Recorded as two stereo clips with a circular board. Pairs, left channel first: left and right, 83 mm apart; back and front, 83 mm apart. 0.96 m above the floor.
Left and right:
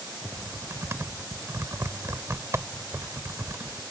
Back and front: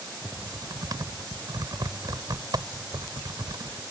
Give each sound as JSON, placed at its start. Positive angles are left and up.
{"t": 0.2, "sound": "typing on a keyboard", "azimuth_deg": -35}